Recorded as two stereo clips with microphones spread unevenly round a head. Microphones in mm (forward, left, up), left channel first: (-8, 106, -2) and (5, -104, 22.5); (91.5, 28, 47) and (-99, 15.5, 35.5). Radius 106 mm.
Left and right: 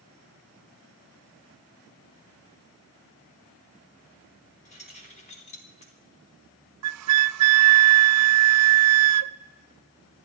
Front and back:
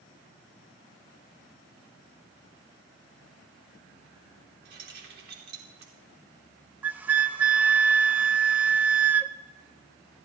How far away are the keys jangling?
About 3 m.